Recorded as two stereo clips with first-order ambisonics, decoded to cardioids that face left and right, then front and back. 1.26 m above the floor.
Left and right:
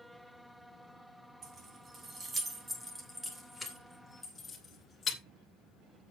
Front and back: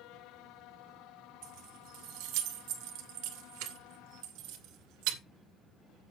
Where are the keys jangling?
155° right, 2.5 m; by 5.2 s 160° left, 2.5 m.